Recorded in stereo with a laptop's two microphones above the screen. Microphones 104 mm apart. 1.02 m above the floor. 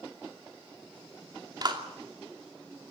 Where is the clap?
45° right (ahead or behind), 2.5 m.